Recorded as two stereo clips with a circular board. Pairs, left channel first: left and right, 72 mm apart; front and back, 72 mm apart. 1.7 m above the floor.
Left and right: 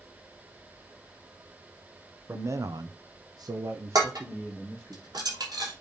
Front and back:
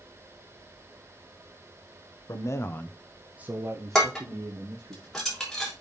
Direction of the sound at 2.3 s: 35° right.